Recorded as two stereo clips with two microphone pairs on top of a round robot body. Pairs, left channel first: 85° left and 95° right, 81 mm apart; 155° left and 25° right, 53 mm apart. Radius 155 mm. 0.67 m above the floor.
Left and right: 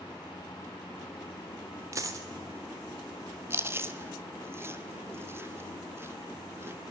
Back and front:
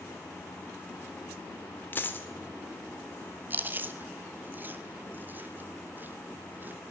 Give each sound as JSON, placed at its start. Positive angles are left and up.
{"t": 1.9, "sound": "a dropped coin", "azimuth_deg": -150, "distance_m": 0.9}
{"t": 3.5, "sound": "chewing", "azimuth_deg": -75, "distance_m": 1.0}